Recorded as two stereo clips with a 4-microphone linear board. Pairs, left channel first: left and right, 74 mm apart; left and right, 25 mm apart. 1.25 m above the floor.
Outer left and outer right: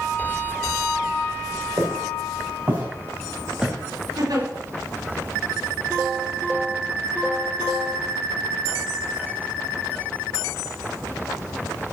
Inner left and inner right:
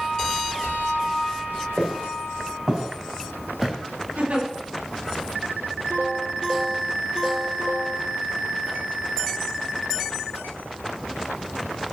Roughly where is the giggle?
Right.